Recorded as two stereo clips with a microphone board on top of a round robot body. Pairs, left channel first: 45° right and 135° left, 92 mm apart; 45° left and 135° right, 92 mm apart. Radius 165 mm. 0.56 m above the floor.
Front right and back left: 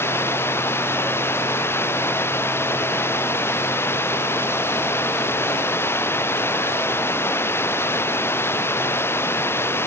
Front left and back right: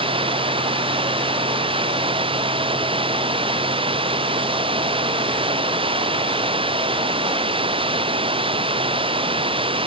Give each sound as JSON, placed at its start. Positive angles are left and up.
{"t": 0.0, "sound": "running water", "azimuth_deg": -110}